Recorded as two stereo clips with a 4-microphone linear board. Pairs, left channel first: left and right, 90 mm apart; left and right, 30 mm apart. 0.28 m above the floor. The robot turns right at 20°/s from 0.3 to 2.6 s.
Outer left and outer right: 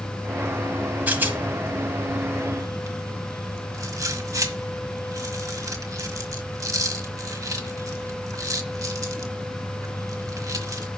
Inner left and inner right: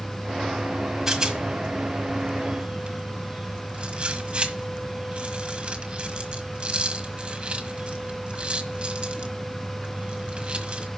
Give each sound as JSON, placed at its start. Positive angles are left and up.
{"t": 1.1, "sound": "a rattle", "side_deg": -20, "distance_m": 1.3}